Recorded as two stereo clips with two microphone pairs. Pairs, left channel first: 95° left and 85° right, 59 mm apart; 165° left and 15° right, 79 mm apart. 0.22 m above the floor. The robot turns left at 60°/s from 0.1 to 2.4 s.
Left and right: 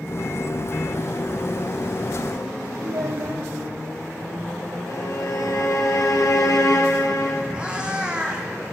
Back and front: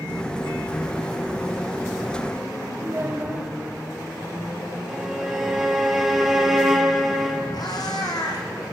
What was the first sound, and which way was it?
A child speaking, 75° right.